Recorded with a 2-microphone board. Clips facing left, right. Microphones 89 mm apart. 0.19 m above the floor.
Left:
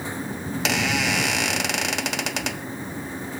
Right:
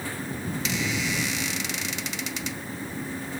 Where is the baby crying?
No baby crying in this recording.